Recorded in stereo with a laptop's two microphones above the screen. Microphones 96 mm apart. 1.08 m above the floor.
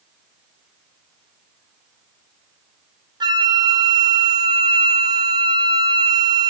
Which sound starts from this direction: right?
A flute, at 3.2 s.